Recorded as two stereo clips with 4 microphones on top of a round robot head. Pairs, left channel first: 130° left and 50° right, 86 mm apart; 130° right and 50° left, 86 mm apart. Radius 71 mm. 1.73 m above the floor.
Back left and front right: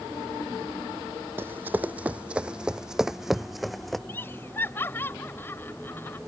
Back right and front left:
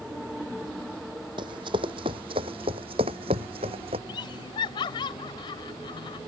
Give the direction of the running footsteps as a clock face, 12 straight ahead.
11 o'clock.